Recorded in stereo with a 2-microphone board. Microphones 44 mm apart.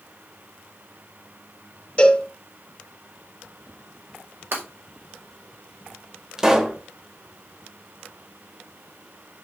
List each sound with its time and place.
2.0 s a cowbell: 25° left (ahead or behind), 2.5 m
4.5 s breaking glass: 55° right (ahead or behind), 5.5 m
6.4 s a pop: 15° right (ahead or behind), 1.5 m